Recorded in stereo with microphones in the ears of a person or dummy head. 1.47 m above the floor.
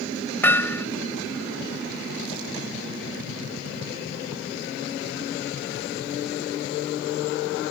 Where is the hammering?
10° left (ahead or behind).